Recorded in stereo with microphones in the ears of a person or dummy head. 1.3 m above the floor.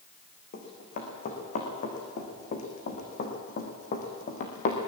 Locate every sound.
0.5 s running footsteps: 45° left (ahead or behind), 5 m